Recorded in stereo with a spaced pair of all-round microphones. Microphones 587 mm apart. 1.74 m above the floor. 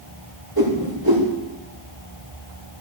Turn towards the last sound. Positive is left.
turn(degrees=-40)  # may be behind; listen again after turning